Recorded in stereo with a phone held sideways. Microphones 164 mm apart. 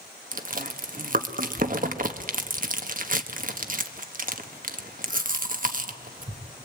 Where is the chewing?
55° right (ahead or behind), 1.3 m.